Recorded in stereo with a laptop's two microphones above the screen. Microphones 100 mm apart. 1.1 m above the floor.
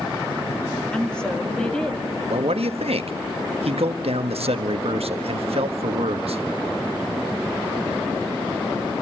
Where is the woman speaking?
10° left (ahead or behind), 2 m.